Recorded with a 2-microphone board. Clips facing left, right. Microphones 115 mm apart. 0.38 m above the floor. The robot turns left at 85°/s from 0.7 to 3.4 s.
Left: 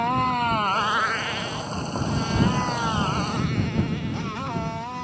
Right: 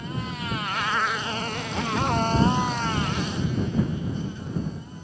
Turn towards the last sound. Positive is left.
turn(degrees=75)  # may be behind; listen again after turning